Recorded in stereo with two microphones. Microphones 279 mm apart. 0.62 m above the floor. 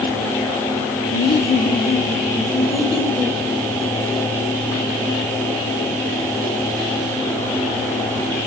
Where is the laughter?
40° left (ahead or behind), 1.2 m; by 3.4 s centre (ahead or behind), 1.9 m.